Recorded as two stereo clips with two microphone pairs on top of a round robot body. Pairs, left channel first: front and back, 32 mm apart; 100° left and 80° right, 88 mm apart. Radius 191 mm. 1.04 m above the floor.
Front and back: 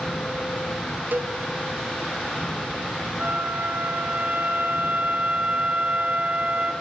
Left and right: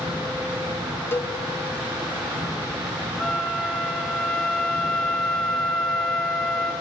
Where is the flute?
Straight behind, 2 m.